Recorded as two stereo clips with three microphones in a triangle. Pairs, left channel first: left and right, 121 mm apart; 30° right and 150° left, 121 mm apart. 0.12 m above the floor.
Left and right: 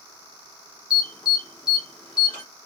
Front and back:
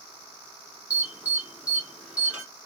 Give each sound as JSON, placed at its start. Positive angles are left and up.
{"t": 0.9, "sound": "an alarm", "azimuth_deg": 80, "distance_m": 1.5}